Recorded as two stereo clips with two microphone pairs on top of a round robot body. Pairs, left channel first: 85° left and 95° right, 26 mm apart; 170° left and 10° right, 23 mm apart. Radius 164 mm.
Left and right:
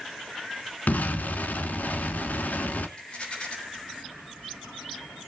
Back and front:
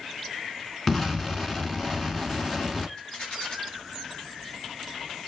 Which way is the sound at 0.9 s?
105° left.